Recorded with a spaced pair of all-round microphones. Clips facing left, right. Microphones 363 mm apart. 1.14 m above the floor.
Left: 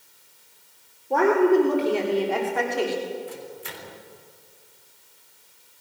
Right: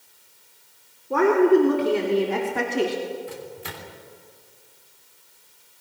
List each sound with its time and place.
1.1 s a woman speaking: 15° right (ahead or behind), 3.5 m; by 3.0 s 45° right (ahead or behind), 2.5 m
3.3 s a microwave: 75° right (ahead or behind), 3.5 m